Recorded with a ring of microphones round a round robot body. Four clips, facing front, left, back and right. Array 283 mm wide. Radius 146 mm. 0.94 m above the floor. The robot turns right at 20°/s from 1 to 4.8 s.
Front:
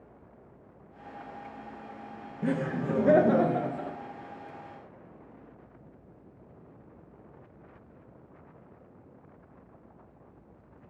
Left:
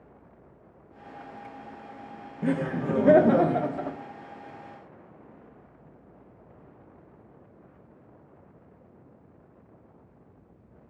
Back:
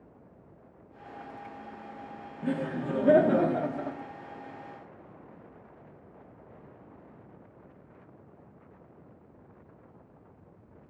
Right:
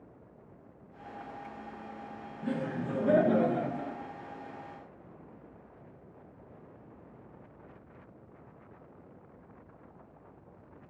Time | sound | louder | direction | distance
2.4 | laughter | left 7 dB, front 2 dB | 70° left | 0.6 m